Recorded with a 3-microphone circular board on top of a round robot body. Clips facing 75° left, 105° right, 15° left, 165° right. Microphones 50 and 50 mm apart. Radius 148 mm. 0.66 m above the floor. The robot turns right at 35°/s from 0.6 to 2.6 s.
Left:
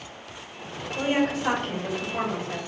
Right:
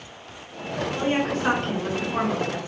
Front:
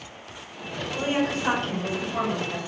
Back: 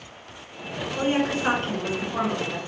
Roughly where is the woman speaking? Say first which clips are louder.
Left 1 dB, back 2 dB; behind right.